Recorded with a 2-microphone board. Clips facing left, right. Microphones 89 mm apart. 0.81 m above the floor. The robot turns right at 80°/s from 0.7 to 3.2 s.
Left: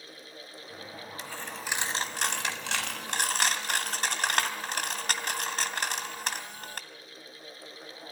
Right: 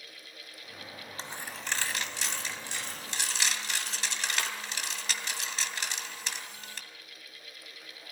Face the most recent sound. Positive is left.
turn(degrees=50)  # may be behind; listen again after turning